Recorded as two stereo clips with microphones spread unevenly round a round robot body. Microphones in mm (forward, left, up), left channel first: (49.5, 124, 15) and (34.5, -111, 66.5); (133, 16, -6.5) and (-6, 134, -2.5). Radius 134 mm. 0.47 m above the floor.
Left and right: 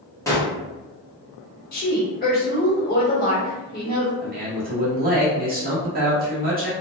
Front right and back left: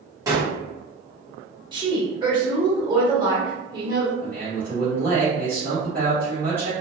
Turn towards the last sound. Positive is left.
turn(degrees=-105)